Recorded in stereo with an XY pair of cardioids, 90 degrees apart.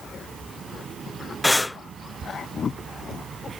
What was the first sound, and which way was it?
Breathing, 15° left.